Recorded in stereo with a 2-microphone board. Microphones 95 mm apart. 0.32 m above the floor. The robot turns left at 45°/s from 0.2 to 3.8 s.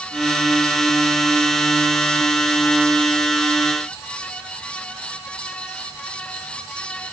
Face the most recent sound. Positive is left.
No sound to turn to.